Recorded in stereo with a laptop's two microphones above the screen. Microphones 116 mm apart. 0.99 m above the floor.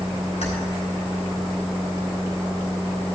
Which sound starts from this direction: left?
Keys jangling, at 0.4 s.